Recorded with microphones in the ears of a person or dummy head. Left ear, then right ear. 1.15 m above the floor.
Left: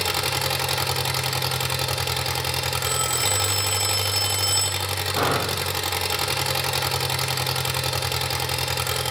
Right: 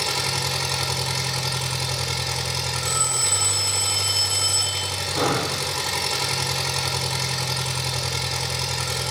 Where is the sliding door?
I don't hear a sliding door.